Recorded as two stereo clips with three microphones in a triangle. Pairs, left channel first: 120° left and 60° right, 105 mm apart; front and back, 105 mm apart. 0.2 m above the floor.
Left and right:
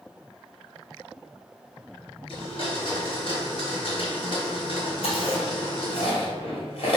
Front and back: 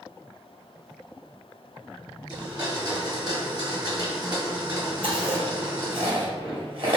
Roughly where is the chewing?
Behind left.